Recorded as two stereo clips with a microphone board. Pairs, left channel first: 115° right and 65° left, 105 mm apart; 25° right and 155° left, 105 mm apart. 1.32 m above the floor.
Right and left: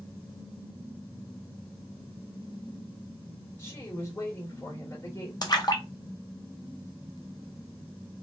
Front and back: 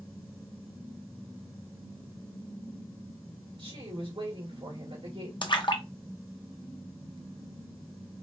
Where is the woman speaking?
175° right, 2.5 m.